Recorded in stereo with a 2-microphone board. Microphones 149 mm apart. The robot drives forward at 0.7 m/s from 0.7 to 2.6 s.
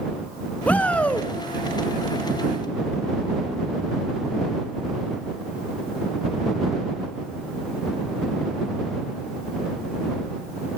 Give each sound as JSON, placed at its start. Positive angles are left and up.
{"t": 0.7, "sound": "a shout", "side_deg": 10, "distance_m": 1.1}